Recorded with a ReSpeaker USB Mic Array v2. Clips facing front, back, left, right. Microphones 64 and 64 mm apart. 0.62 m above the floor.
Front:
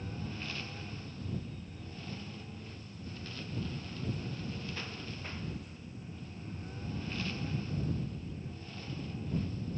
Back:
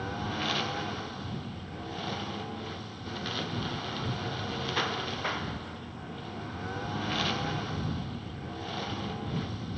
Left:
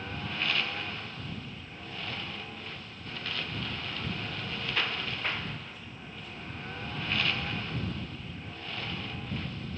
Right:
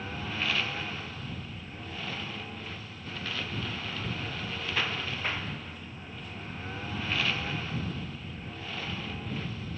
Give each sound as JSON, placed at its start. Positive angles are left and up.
{"t": 0.0, "sound": "a lawn mower", "azimuth_deg": 180}